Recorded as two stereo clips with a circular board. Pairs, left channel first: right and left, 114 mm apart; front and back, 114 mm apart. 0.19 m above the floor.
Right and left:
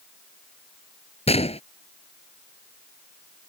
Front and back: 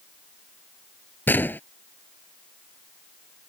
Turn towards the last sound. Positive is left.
turn(degrees=-70)